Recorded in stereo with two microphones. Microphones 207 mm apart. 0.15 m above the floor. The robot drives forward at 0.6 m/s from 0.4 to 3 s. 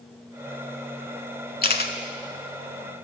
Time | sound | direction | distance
1.6 | a camera shutter | 45° left (ahead or behind) | 0.6 m